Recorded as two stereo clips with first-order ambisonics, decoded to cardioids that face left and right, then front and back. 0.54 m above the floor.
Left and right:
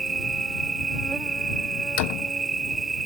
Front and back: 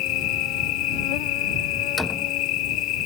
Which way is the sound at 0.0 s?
15° right.